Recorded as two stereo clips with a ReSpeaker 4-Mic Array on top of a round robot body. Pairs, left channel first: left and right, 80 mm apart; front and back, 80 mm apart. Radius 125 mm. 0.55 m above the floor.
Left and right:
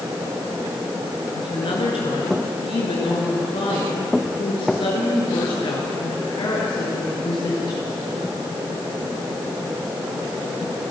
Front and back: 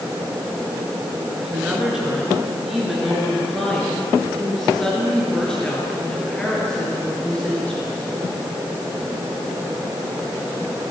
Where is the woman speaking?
100° left, 9.5 m; by 8.1 s 75° left, 13 m.